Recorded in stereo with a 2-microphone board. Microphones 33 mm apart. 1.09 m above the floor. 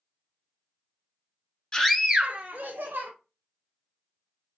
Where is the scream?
25° left (ahead or behind), 0.5 m; by 3.1 s 65° right (ahead or behind), 1.1 m.